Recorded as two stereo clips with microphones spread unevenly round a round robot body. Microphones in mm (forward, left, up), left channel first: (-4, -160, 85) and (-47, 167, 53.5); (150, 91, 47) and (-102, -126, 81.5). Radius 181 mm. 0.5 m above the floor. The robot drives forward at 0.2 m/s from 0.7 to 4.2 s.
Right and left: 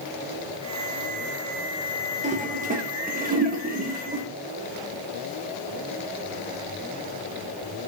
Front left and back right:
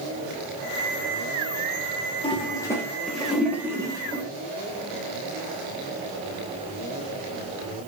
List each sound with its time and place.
2.2 s a toilet flushing: 80° left, 0.6 m; by 4.2 s 140° left, 0.7 m